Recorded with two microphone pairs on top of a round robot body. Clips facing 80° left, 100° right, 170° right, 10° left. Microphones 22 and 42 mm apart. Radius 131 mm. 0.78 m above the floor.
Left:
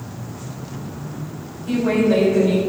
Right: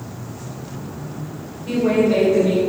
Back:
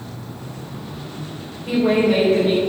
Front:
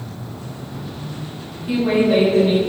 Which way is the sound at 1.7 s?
160° right.